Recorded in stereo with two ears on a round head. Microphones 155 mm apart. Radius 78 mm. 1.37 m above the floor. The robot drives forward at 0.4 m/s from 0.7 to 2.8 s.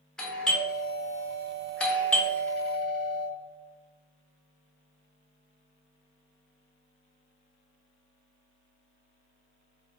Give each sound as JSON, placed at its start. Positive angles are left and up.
{"t": 0.2, "sound": "a doorbell", "side_deg": 5, "distance_m": 0.8}